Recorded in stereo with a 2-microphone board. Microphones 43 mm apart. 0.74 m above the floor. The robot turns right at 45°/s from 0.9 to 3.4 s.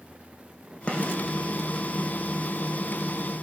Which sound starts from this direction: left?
A gunshot, at 0.9 s.